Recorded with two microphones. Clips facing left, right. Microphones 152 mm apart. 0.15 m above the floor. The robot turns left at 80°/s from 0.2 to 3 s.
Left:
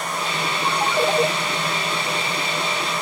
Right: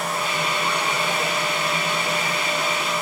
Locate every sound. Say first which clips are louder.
0.7 s a ringtone: left 4 dB; 130° left, 2.5 m; by 1.3 s 80° left, 2.5 m